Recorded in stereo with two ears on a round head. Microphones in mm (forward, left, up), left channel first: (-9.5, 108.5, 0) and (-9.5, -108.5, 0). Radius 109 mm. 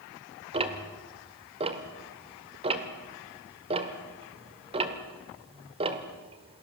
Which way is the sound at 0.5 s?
25° right (ahead or behind).